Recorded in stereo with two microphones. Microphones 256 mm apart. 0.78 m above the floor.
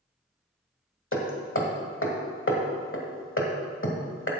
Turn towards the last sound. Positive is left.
turn(degrees=50)  # may be behind; listen again after turning